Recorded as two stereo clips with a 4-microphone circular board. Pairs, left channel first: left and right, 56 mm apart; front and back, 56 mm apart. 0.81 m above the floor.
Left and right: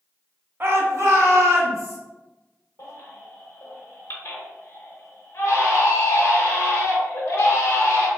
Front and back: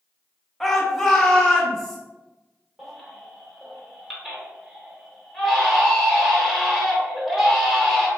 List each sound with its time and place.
0.6 s a shout: 85° right, 0.6 m; by 2.0 s 75° right, 1.2 m
2.8 s a baby crying: 90° left, 0.8 m